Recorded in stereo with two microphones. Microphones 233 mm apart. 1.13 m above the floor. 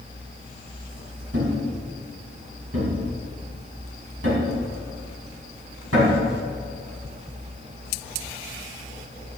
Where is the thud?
70° right (ahead or behind), 4.5 m.